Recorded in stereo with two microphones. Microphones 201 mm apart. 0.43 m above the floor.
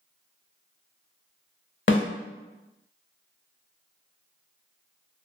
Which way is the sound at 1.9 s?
65° left (ahead or behind).